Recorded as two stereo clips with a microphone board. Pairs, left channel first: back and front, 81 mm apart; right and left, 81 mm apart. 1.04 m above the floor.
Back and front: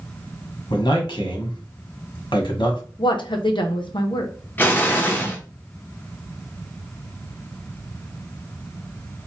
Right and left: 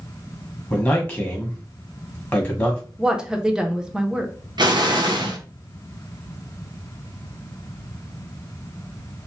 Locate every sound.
0.7 s a man speaking: 160° right, 1.2 m
3.0 s a woman speaking: 170° left, 0.6 m
4.6 s an explosion: 115° left, 0.6 m